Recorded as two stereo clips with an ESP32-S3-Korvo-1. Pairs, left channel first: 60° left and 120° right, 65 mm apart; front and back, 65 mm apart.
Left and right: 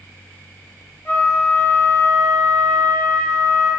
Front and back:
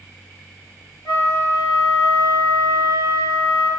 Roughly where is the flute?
Ahead.